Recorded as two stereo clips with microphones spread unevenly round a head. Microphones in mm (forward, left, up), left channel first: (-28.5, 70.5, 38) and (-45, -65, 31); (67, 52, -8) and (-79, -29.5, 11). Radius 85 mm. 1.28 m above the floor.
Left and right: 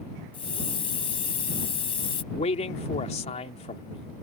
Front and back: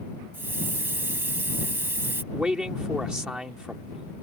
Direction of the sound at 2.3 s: 125° left.